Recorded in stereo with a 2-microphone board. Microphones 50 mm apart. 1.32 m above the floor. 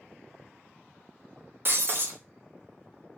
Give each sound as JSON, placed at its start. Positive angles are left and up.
{"t": 1.6, "sound": "breaking glass", "side_deg": -50, "distance_m": 0.5}